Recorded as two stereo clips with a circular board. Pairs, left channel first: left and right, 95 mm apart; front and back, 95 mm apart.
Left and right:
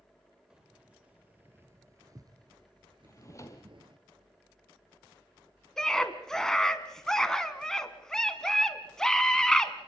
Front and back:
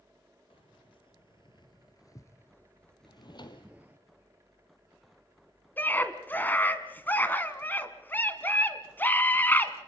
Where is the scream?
15° left, 1.5 m.